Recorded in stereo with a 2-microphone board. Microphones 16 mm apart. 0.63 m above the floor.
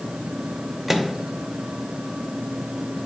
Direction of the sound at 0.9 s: 15° right (ahead or behind).